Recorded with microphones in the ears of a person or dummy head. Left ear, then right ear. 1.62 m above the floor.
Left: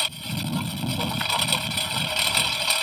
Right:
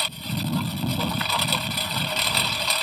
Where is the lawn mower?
5° left (ahead or behind).